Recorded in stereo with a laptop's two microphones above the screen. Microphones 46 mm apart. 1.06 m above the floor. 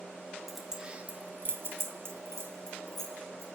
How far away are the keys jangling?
About 1.2 m.